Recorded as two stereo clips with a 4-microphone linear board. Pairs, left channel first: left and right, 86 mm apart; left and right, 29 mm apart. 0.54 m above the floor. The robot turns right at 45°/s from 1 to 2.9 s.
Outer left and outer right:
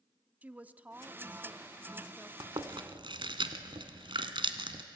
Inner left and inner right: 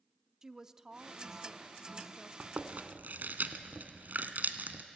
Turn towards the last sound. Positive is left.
turn(degrees=-75)  # may be behind; listen again after turning